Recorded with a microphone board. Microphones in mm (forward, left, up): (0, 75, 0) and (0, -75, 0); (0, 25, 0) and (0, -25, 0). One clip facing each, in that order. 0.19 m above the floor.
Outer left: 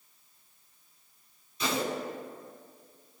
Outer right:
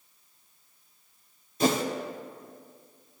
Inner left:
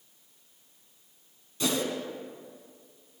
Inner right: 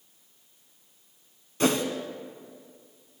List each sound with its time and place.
1.6 s a whoosh: 50° right (ahead or behind), 0.7 m